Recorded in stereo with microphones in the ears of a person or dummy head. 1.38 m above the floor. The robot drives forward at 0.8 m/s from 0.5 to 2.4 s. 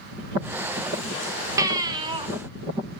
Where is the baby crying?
20° right (ahead or behind), 1.5 m; by 2.3 s 30° right (ahead or behind), 1.0 m.